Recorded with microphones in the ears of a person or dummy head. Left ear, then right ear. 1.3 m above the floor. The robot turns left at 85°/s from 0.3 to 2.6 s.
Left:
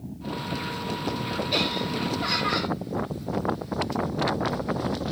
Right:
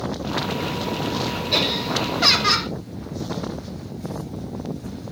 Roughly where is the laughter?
Ahead.